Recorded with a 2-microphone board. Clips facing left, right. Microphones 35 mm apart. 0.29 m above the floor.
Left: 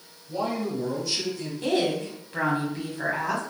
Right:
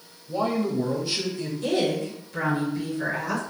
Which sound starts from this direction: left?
A woman speaking, at 1.6 s.